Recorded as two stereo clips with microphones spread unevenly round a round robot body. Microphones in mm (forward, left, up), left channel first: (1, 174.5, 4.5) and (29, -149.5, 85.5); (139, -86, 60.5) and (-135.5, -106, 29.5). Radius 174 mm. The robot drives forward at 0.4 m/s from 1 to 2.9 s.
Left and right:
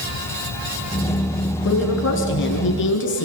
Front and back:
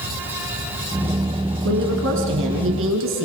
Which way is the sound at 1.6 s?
140° left.